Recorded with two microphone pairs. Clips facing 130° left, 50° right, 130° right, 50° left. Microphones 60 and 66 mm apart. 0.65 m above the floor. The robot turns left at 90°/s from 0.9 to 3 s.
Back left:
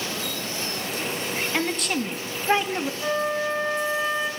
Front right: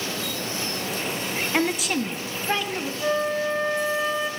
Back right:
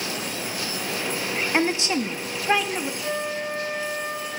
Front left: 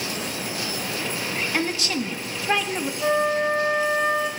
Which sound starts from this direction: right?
A woman speaking, at 1.5 s.